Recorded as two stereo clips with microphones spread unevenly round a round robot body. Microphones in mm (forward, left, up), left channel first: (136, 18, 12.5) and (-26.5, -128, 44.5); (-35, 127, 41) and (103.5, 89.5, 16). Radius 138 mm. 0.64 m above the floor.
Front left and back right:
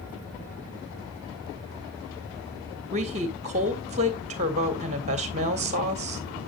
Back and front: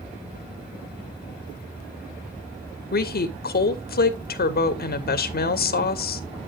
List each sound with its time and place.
2.9 s a woman speaking: 155° left, 1.7 m